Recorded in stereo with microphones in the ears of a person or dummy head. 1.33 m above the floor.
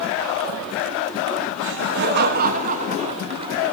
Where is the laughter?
65° right (ahead or behind), 1.3 m; by 3.7 s 20° right (ahead or behind), 1.5 m.